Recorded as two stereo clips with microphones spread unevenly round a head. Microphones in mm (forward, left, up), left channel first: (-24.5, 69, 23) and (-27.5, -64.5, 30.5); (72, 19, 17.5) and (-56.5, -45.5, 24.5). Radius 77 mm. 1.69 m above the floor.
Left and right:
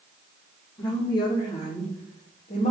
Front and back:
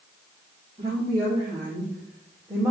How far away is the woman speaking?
About 3.5 m.